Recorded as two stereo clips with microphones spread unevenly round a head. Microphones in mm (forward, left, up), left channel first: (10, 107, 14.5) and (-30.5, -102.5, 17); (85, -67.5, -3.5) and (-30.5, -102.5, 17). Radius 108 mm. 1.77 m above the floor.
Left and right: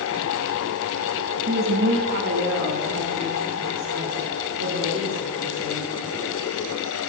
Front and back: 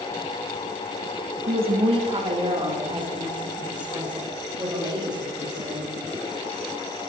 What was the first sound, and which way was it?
A woman speaking, 145° right.